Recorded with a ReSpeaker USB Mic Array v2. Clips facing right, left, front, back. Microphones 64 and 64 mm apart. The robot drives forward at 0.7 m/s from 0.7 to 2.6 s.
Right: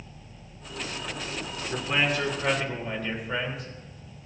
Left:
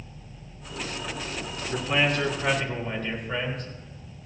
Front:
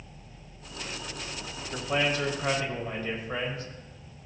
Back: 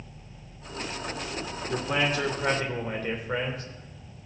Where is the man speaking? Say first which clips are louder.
Left 2 dB, back 1 dB; 175° right, 3 m.